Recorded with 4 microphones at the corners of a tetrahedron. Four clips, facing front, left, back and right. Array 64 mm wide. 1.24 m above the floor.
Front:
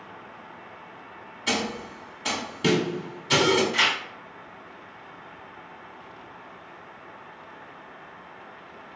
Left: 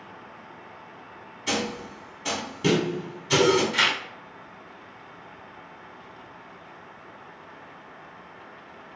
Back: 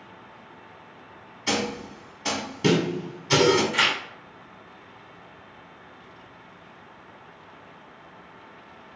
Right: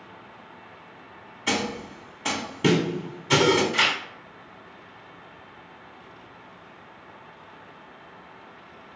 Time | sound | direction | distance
1.5 | a snare drum | 105° right | 1.0 m
3.7 | tearing paper | 165° right | 0.9 m